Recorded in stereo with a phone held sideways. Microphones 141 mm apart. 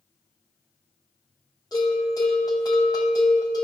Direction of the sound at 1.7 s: 30° left (ahead or behind).